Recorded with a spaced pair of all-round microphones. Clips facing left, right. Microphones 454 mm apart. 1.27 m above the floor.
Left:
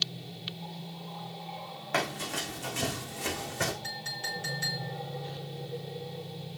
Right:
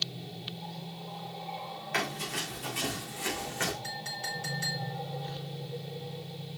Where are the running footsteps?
65° left (ahead or behind), 5 m; by 3.7 s 55° left (ahead or behind), 4.5 m.